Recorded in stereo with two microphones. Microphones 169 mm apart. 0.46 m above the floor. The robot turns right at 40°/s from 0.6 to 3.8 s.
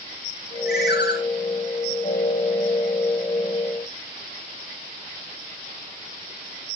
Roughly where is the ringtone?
Left.